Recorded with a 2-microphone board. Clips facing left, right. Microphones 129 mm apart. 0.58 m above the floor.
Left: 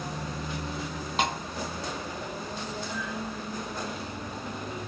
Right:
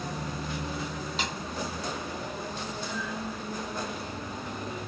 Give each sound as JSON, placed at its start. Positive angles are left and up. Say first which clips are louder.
{"t": 1.2, "sound": "a snare drum", "louder": "left 9 dB", "side_deg": 55}